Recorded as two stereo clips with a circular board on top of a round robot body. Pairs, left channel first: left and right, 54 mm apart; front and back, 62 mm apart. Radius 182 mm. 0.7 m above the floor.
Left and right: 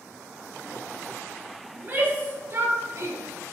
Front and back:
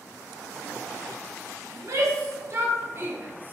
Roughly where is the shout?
Behind right.